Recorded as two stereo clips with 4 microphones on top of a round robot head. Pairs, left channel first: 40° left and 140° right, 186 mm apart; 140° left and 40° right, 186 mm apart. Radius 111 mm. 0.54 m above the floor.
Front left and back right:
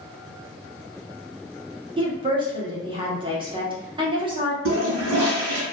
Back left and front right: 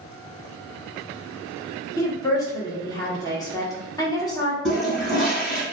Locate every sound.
2.0 s a woman speaking: 170° right, 1.0 m
4.7 s a toilet flushing: 135° right, 1.0 m